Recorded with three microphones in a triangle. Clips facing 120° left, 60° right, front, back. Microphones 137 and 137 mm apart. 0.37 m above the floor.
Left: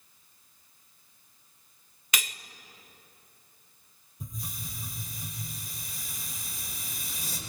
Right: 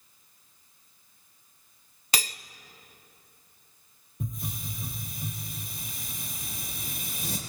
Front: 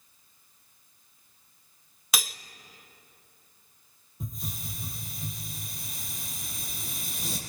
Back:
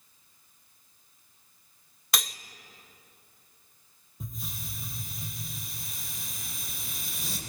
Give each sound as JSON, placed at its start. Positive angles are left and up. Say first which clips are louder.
{"t": 2.1, "sound": "cutlery clinking", "louder": "right 3 dB, even", "azimuth_deg": -85, "distance_m": 0.5}
{"t": 4.2, "sound": "a hiss", "louder": "right 5 dB, front 3 dB", "azimuth_deg": -90, "distance_m": 4.5}